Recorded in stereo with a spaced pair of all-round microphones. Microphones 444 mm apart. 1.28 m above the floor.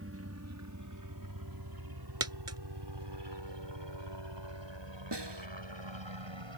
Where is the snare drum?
65° right (ahead or behind).